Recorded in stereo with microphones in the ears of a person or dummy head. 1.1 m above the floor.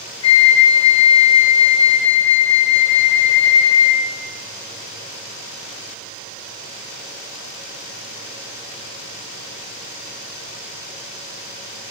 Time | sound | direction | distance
0.2 | a flute | 30° left (ahead or behind) | 0.8 m